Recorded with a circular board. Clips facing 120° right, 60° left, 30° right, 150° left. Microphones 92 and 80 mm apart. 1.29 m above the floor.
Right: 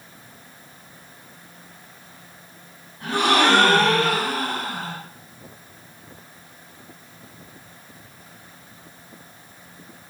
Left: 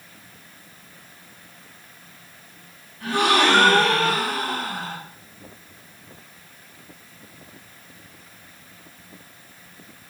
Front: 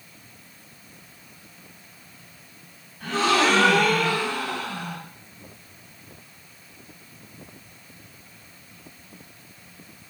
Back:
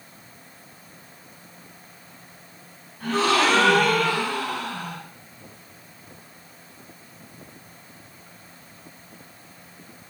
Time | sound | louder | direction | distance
3.0 | a gasp | even, even | 170° right | 2.0 m